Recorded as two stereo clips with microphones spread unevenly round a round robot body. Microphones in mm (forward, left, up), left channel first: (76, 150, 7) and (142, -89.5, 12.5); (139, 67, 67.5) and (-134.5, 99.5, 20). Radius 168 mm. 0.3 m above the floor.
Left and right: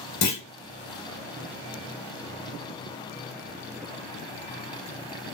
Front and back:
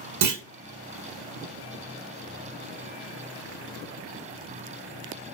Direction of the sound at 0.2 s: 145° left.